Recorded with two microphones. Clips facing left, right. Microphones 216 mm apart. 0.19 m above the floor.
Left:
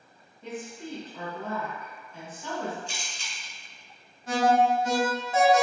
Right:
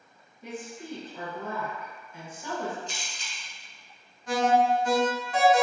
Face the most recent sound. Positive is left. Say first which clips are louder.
# left 1 dB
turn(degrees=25)  # may be behind; listen again after turning